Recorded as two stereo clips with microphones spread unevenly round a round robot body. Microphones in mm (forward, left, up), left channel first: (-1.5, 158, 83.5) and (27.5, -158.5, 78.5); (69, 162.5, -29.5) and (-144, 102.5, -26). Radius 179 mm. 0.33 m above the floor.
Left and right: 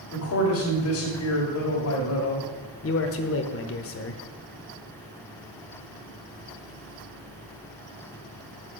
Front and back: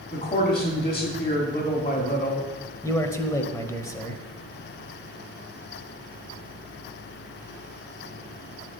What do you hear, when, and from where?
0.1 s a man speaking: 75° left, 2 m
2.8 s a man speaking: 85° left, 1.1 m